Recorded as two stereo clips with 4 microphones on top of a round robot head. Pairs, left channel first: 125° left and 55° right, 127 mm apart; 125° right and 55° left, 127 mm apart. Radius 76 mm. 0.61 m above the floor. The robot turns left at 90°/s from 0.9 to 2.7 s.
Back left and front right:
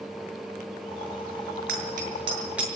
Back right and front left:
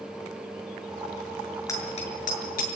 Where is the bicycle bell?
55° right, 7 m; by 2.7 s 145° right, 7 m.